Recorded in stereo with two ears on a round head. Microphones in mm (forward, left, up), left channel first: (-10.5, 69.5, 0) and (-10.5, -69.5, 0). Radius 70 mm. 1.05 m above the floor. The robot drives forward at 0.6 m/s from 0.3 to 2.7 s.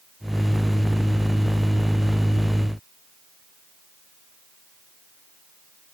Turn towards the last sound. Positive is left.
No sound to turn to.